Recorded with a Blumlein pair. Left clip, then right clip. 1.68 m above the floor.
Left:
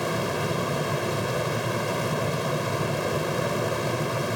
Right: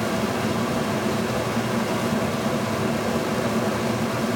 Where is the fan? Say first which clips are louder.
Right 2 dB; 10° right, 1.1 m.